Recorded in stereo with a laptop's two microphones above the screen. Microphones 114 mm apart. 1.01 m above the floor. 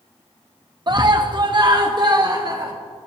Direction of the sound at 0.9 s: 40° right (ahead or behind).